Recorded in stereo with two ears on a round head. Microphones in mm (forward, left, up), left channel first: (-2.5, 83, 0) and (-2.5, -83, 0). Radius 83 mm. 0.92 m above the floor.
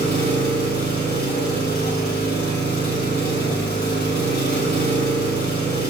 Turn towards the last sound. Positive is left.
turn(degrees=55)  # may be behind; listen again after turning